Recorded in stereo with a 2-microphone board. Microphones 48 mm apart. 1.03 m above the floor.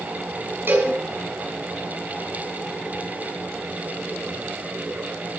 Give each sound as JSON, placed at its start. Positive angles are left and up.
{"t": 0.7, "sound": "a cowbell", "side_deg": -55, "distance_m": 6.0}